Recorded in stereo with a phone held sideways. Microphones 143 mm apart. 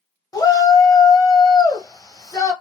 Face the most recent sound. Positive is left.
turn(degrees=25)  # may be behind; listen again after turning